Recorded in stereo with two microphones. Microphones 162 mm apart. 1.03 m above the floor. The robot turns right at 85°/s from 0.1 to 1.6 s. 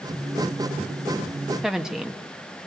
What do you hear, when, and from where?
1.6 s a woman speaking: 5° right (ahead or behind), 1.2 m